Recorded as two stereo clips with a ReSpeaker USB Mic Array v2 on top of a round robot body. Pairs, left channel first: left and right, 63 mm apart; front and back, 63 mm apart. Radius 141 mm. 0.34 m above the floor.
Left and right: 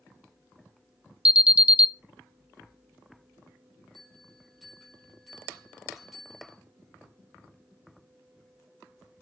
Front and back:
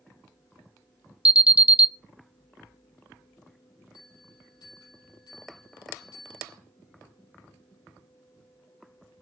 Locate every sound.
1.2 s an alarm: 140° right, 0.7 m
3.9 s a bell: straight ahead, 6 m